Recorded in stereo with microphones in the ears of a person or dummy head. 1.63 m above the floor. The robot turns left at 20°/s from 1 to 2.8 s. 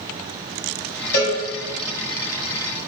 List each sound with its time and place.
1.1 s a cowbell: 50° left (ahead or behind), 0.7 m; by 1.4 s 45° left (ahead or behind), 0.7 m